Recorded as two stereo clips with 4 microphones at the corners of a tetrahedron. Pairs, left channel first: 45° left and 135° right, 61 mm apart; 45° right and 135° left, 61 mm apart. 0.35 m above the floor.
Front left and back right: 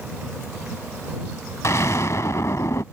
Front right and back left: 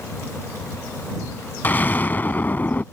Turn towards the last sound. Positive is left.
turn(degrees=10)